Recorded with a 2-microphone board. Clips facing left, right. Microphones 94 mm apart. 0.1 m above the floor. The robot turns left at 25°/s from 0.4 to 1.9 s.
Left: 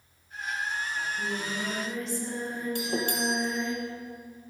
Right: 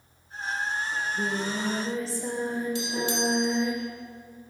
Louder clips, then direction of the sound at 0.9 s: Right 3 dB; 55° right (ahead or behind).